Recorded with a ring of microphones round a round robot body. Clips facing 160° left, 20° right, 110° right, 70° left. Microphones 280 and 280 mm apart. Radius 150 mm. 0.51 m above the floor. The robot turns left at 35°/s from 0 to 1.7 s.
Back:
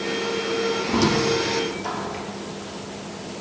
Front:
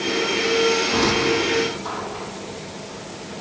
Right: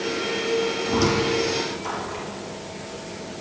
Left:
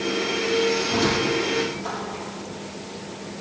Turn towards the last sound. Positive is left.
turn(degrees=180)